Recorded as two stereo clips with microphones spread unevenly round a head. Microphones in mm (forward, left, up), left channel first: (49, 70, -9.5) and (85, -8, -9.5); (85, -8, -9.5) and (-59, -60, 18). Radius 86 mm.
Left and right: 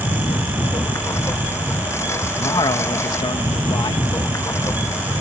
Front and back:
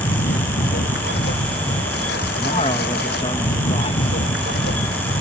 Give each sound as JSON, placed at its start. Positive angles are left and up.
{"t": 0.0, "sound": "a lawn mower", "azimuth_deg": 55}
{"t": 2.4, "sound": "a man speaking", "azimuth_deg": 85}